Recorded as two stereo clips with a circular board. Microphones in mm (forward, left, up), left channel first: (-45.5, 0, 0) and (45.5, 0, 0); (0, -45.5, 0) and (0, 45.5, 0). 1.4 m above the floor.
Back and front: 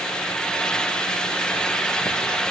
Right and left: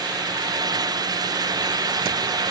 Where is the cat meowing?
I don't hear a cat meowing.